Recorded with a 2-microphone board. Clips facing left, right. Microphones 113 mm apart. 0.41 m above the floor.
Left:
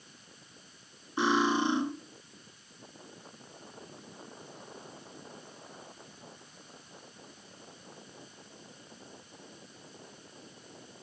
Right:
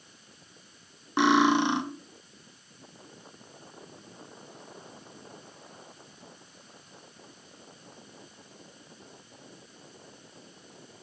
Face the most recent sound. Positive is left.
turn(degrees=-70)  # may be behind; listen again after turning